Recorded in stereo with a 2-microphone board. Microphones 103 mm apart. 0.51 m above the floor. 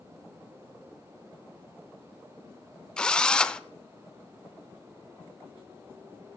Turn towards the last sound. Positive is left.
turn(degrees=10)  # may be behind; listen again after turning